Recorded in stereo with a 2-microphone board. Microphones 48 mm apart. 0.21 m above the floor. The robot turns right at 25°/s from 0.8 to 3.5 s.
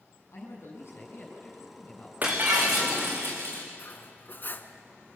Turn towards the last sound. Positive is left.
turn(degrees=45)  # may be behind; listen again after turning